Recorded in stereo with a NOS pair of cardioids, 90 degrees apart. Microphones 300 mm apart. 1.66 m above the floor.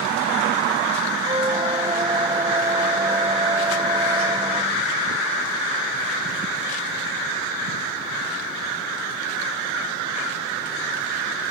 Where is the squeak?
15° right.